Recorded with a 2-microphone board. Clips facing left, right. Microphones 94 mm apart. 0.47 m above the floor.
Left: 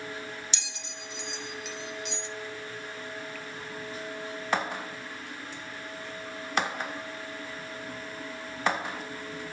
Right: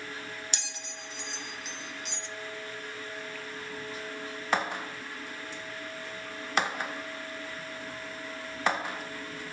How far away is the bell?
About 0.8 m.